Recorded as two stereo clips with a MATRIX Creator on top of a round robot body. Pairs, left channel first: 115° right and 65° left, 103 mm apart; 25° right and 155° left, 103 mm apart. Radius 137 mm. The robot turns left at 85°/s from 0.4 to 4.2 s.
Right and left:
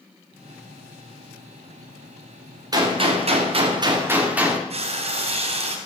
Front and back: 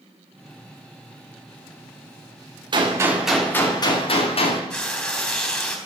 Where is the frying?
55° left, 3.5 m.